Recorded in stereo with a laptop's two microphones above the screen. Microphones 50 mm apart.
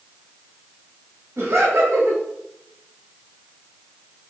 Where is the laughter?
65° right (ahead or behind), 1.4 m.